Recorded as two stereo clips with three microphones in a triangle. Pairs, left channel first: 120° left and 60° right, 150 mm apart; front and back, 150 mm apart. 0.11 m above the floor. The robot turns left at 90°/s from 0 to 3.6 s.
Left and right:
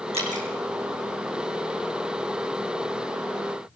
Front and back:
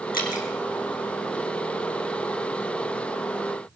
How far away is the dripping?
About 3 m.